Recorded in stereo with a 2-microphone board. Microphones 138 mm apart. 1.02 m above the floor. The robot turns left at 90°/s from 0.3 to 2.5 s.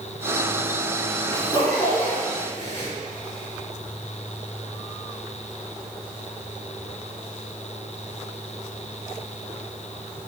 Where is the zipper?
15° left (ahead or behind), 3.5 m; by 2.9 s 55° left (ahead or behind), 3.5 m.